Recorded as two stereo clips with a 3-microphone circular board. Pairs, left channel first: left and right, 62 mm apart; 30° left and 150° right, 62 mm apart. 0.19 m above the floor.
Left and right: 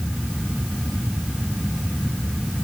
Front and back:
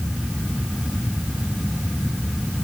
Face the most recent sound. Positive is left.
No sound to turn to.